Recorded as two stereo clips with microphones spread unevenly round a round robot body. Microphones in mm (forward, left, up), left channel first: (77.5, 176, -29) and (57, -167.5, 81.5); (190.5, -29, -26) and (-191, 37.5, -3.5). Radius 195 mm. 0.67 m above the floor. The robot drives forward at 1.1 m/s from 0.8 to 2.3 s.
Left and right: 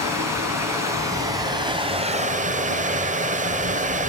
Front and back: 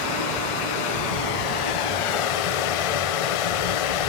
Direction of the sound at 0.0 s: 10° right.